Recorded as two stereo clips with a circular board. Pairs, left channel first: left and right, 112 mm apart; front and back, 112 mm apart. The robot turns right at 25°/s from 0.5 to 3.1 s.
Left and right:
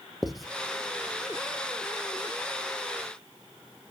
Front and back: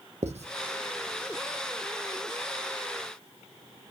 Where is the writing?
Straight behind, 0.8 m.